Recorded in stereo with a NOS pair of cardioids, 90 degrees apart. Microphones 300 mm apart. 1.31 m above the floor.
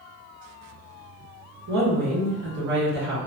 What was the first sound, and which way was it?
A woman speaking, 60° right.